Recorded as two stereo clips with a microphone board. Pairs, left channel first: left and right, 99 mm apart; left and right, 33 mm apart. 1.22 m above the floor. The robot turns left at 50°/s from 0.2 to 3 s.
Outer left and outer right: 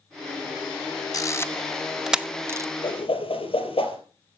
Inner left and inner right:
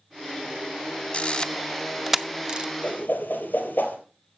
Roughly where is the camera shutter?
Left.